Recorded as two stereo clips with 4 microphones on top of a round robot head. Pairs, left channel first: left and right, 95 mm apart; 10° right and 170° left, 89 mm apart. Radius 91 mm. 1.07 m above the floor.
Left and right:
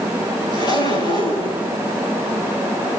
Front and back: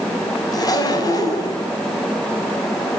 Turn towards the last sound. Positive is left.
turn(degrees=35)